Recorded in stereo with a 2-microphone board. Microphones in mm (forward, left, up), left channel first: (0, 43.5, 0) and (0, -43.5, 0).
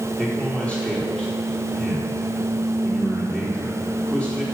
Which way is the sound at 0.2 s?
10° left (ahead or behind).